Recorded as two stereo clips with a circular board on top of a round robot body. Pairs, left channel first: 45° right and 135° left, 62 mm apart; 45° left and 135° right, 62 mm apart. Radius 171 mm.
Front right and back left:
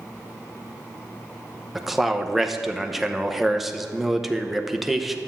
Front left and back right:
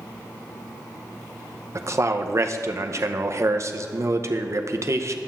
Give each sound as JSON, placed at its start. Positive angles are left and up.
{"t": 1.8, "sound": "a man speaking", "azimuth_deg": -140, "distance_m": 1.0}